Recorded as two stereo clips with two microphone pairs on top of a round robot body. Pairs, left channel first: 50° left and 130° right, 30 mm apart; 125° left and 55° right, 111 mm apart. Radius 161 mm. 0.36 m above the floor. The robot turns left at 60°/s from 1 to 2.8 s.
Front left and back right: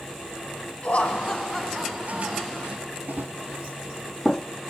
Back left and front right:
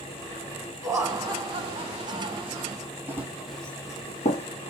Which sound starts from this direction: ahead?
Laughter, at 0.8 s.